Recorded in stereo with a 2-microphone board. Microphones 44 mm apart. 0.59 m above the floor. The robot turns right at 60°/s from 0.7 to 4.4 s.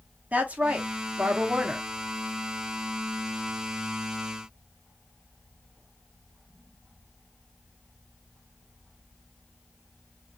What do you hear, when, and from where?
0.3 s a woman speaking: 95° right, 0.7 m; by 1.9 s 25° right, 0.7 m